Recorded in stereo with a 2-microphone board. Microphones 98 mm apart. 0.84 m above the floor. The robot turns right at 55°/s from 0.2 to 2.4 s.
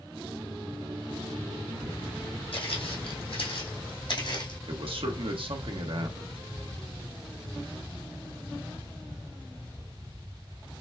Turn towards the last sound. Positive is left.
turn(degrees=-65)  # may be behind; listen again after turning